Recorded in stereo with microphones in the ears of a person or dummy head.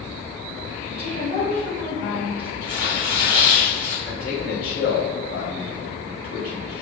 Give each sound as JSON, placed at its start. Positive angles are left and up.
{"t": 0.9, "sound": "a woman speaking", "side_deg": 45, "distance_m": 1.8}
{"t": 2.6, "sound": "tearing paper", "side_deg": 55, "distance_m": 1.6}
{"t": 4.1, "sound": "a man speaking", "side_deg": 45, "distance_m": 1.6}